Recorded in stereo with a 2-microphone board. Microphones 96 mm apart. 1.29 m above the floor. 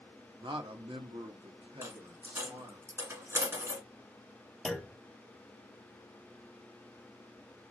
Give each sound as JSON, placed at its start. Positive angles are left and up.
{"t": 0.4, "sound": "a man speaking", "side_deg": -55, "distance_m": 0.7}
{"t": 1.8, "sound": "a dropped coin", "side_deg": -25, "distance_m": 1.5}
{"t": 4.7, "sound": "a clunk", "side_deg": 5, "distance_m": 0.6}